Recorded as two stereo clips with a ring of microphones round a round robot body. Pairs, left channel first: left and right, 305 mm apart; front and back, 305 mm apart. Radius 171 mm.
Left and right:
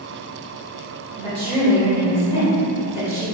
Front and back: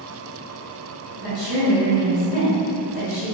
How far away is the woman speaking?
About 1.2 m.